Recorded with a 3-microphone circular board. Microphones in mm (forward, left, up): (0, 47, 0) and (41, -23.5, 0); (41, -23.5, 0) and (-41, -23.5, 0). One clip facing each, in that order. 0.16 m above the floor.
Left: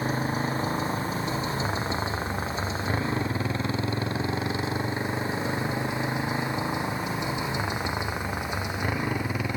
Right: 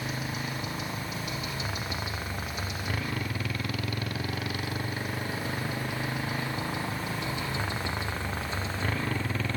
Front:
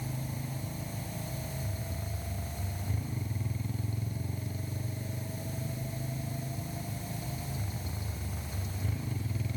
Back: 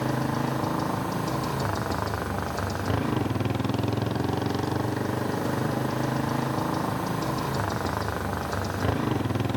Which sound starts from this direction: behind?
A motorcycle, at 0.0 s.